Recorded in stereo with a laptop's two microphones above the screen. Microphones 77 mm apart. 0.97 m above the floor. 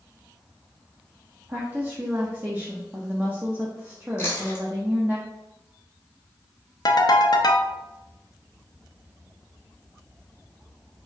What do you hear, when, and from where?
1.5 s a woman speaking: 20° right (ahead or behind), 0.8 m
4.2 s chewing: 30° left (ahead or behind), 1.6 m
6.8 s a ringtone: 60° left (ahead or behind), 0.5 m